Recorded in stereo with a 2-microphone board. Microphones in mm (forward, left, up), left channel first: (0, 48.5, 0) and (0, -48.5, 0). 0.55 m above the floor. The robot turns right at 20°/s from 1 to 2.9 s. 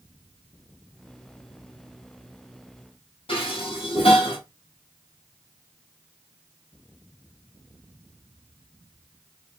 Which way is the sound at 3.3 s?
75° left (ahead or behind).